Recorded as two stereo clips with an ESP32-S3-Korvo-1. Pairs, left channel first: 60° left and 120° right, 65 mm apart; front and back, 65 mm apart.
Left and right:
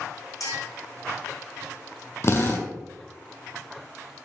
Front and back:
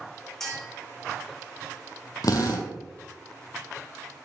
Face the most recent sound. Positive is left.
turn(degrees=15)